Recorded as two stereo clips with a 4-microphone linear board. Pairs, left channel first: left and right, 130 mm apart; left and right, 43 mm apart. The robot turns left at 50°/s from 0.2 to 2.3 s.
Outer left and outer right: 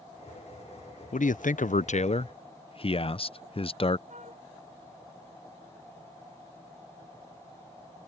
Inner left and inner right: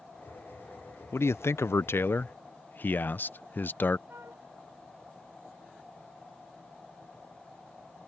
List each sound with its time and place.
1.1 s a man speaking: 105° left; by 4.0 s 45° left
4.1 s a flute: 65° right (ahead or behind)